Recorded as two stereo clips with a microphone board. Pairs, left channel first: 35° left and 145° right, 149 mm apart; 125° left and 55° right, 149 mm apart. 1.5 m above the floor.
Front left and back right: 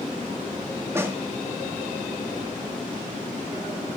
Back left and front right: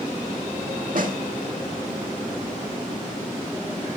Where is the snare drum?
75° right, 2 m.